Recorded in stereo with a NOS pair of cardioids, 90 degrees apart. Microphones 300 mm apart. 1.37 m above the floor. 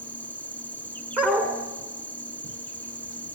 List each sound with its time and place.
0.0 s an insect: 5° left, 2.5 m
1.2 s a dog barking: 5° right, 6.5 m